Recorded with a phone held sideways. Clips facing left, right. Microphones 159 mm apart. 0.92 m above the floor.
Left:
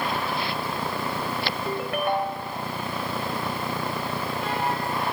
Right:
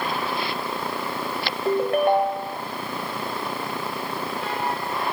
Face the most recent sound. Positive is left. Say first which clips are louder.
# right 9 dB
turn(degrees=-35)  # may be behind; listen again after turning